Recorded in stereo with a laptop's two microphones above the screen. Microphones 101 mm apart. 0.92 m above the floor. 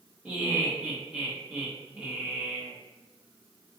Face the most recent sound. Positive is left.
turn(degrees=-15)  # may be behind; listen again after turning